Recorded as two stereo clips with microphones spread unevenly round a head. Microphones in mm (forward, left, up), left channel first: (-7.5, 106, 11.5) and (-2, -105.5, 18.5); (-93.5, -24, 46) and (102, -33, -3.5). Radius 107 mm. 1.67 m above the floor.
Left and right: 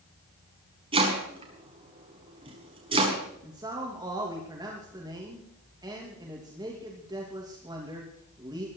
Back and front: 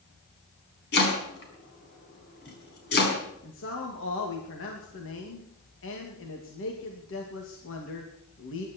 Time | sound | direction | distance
0.9 | chopping | 155° right | 5 m
3.4 | a man speaking | 160° right | 2.5 m